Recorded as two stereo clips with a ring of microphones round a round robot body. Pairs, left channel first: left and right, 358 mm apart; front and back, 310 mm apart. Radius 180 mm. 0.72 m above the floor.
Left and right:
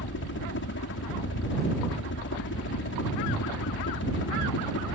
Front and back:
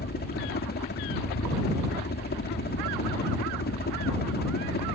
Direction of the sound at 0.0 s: 45° left.